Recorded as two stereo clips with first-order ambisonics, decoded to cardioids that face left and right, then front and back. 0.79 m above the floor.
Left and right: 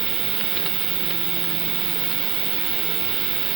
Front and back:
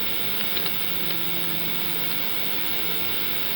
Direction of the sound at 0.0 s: 120° right.